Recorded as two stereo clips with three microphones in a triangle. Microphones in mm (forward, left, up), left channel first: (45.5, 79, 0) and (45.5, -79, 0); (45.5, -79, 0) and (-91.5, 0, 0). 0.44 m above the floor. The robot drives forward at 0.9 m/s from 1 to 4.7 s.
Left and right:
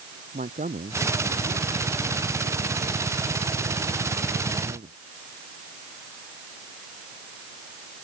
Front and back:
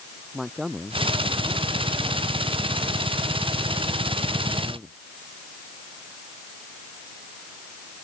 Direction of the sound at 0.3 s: 120° right.